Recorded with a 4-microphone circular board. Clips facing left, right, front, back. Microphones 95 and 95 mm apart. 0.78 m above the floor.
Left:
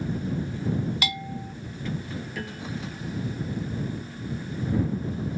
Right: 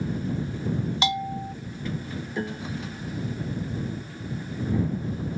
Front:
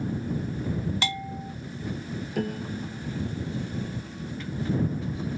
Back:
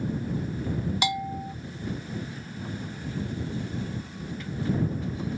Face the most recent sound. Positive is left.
turn(degrees=-25)